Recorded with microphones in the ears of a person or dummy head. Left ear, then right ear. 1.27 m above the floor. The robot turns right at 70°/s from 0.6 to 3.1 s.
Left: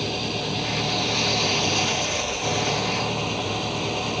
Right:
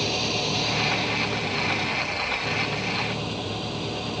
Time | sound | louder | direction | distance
0.0 | an engine running | right 2 dB | 15° right | ?